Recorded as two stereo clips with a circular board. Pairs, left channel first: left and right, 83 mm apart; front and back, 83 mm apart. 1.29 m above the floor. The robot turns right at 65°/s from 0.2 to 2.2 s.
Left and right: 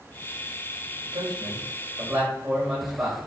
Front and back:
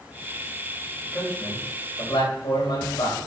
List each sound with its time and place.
1.0 s a man speaking: 85° right, 7.5 m; by 3.2 s 10° right, 7.5 m